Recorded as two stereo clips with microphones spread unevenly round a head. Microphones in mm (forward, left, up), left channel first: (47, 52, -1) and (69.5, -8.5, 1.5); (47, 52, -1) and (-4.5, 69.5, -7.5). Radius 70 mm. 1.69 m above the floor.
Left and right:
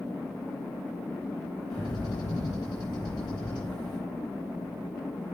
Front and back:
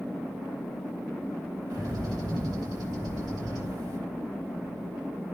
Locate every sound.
1.7 s a bird: 170° left, 1.6 m